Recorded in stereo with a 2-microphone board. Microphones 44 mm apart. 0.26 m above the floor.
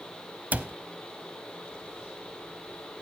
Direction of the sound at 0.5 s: 35° right (ahead or behind).